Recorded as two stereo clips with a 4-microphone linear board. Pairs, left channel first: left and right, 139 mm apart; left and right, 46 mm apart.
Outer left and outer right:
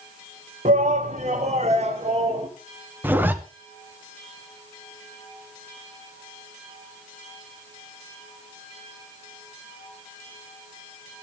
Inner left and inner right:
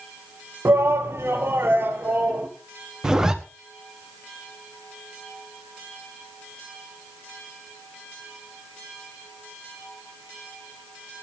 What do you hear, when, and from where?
0.7 s a shout: 60° right (ahead or behind), 1.7 m; by 2.5 s 50° right (ahead or behind), 2.5 m
3.0 s a zipper: 15° right (ahead or behind), 1.3 m